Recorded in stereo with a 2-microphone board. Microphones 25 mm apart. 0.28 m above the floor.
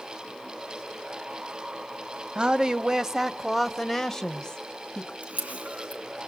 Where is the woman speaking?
35° right (ahead or behind), 1.1 m; by 5.1 s 35° left (ahead or behind), 1.3 m.